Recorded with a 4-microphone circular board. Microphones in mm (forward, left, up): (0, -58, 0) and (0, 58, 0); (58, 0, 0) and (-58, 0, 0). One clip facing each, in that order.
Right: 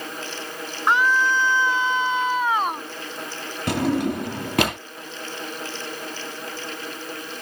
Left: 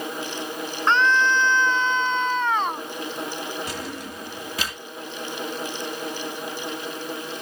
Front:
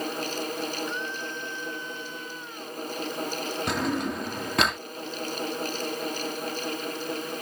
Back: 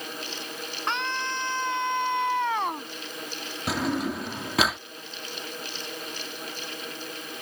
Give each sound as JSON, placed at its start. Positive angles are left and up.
{"t": 0.9, "sound": "a scream", "azimuth_deg": -170}
{"t": 3.7, "sound": "a drawer", "azimuth_deg": -95}